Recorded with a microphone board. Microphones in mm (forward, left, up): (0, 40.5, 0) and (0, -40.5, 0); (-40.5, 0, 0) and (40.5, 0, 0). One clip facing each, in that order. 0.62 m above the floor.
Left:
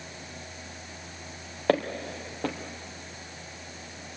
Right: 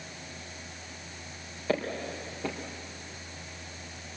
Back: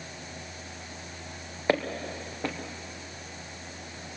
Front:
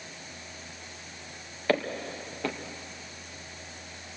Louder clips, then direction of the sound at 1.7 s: Left 5 dB, back 1 dB; 110° left.